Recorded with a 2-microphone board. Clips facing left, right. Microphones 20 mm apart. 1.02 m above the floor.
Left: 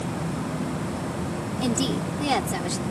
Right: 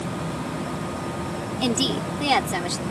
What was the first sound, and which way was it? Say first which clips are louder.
A woman speaking: right 2 dB; 40° right (ahead or behind).